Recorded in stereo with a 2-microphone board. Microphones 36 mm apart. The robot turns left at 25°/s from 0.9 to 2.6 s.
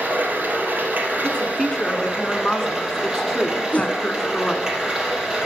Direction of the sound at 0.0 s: 120° right.